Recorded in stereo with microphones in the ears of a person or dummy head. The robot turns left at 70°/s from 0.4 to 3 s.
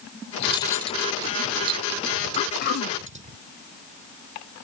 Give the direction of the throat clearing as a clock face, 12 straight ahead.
7 o'clock.